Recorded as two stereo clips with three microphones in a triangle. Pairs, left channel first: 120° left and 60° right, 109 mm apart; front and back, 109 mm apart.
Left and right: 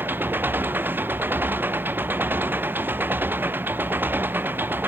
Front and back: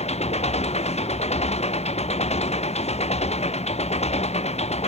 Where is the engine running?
10° left.